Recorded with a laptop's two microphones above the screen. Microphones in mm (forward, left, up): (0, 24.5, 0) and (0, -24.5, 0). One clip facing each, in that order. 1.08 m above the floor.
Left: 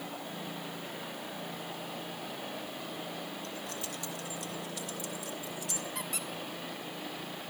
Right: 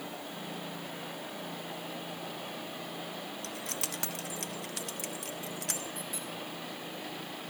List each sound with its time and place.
3.4 s keys jangling: 70° right (ahead or behind), 0.7 m; by 5.8 s 65° right (ahead or behind), 2.0 m
6.0 s a squeak: 75° left (ahead or behind), 1.8 m